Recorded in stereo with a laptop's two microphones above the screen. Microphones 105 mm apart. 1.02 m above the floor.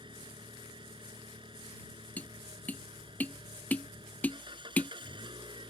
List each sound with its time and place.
0.0 s an engine running: 50° right (ahead or behind)
2.2 s tapping: 15° left (ahead or behind)